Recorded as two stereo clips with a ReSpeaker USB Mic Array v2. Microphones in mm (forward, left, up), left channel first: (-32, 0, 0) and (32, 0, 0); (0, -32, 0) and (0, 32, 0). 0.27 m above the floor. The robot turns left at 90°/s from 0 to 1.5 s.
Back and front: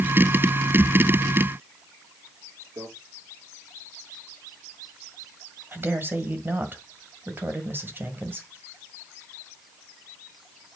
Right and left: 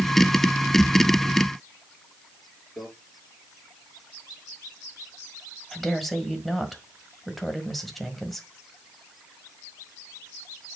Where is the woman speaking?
5° right, 1.5 m.